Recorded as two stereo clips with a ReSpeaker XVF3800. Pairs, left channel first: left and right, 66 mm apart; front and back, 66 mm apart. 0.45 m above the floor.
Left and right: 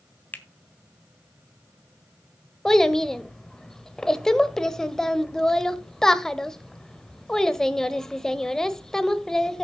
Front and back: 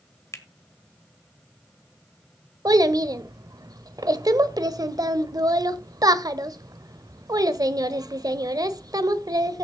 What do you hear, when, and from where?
0.3 s a finger snap: 35° left, 1.3 m
2.6 s a child speaking: 170° left, 0.9 m